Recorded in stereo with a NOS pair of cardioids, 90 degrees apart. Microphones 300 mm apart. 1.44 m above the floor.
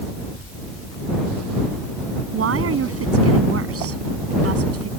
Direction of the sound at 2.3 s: 50° right.